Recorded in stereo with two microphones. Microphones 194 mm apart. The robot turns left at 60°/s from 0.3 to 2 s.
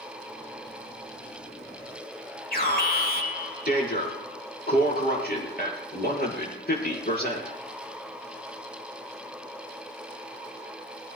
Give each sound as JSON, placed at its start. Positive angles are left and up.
{"t": 2.5, "sound": "an alarm", "side_deg": 55, "distance_m": 8.0}